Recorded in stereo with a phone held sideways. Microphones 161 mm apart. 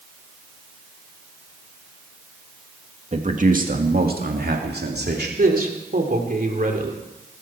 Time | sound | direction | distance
3.1 | a man speaking | 45° right (ahead or behind) | 2 m
5.4 | a man speaking | 60° right (ahead or behind) | 3 m